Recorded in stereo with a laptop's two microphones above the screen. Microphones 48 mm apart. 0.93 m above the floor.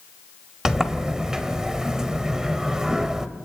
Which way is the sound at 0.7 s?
10° right (ahead or behind).